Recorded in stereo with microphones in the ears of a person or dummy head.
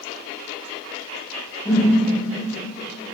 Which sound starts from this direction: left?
A whoosh, at 1.6 s.